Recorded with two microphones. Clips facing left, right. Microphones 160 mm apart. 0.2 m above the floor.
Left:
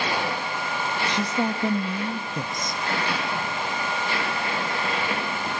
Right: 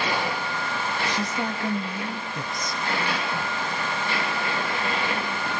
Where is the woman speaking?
20° left (ahead or behind), 1.2 m.